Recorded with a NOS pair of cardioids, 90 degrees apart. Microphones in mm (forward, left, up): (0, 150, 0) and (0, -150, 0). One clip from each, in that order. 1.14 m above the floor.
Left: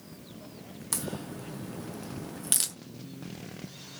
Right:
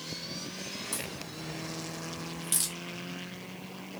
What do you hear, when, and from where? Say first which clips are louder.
0.9 s a crack: left 1 dB; 45° left, 0.7 m